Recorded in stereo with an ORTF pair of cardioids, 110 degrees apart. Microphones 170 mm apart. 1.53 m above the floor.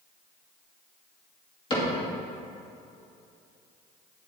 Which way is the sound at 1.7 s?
30° left.